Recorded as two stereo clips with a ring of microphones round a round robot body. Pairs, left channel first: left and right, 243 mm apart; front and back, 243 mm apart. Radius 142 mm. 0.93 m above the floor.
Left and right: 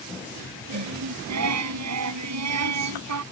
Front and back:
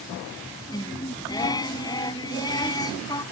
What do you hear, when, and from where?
0.7 s singing: 75° right